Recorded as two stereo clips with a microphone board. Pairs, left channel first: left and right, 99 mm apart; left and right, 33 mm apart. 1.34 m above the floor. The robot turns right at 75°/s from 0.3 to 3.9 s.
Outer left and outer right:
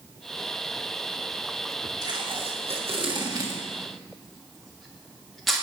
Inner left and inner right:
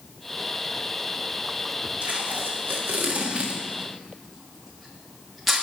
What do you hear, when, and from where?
2.0 s tape being pulled: 40° right (ahead or behind), 1.7 m; by 5.6 s centre (ahead or behind), 1.7 m